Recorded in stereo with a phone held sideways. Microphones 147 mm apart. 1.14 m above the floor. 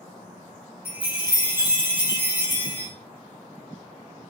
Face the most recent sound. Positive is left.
turn(degrees=-80)